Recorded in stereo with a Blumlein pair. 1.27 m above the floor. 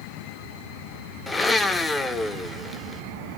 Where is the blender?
10° left, 1.0 m.